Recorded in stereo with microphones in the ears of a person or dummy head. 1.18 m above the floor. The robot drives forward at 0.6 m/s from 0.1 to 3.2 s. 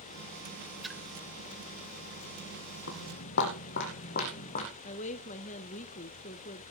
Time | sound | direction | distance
0.8 | a splash | 5° left (ahead or behind) | 1.1 m
2.9 | footsteps | 65° left (ahead or behind) | 3 m
4.8 | a woman speaking | 35° left (ahead or behind) | 0.7 m